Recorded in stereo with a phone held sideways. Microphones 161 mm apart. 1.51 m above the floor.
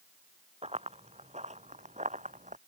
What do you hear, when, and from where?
0.6 s running footsteps: 40° right (ahead or behind); by 2.6 s 50° right (ahead or behind)